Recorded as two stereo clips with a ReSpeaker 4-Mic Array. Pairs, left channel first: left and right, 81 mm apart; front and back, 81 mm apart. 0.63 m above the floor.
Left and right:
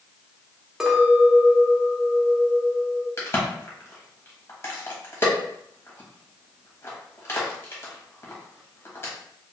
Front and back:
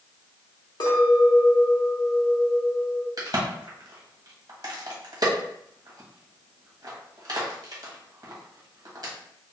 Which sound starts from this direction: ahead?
A clink, at 0.8 s.